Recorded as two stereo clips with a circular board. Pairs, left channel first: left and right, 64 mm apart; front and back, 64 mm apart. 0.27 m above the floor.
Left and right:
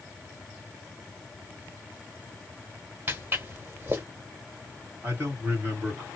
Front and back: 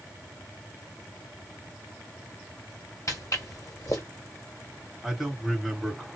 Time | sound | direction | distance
3.1 | footsteps | 35° right | 1.7 m
5.0 | a man speaking | 90° right | 1.8 m